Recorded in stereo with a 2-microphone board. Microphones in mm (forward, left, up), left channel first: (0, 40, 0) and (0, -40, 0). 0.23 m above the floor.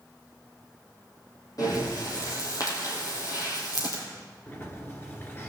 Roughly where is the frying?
I don't hear frying.